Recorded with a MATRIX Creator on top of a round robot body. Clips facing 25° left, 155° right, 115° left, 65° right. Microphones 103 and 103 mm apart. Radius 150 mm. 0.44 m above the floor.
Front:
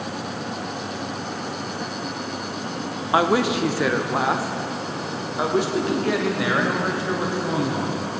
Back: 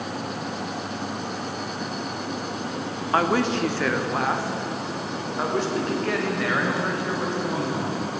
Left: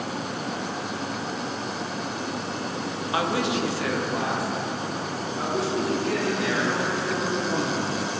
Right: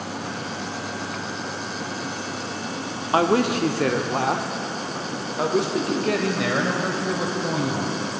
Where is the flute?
I don't hear a flute.